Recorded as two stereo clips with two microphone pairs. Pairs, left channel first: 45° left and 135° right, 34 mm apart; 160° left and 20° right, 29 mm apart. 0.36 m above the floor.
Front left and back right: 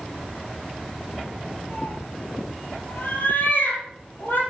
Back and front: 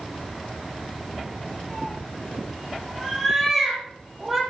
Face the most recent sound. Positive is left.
turn(degrees=65)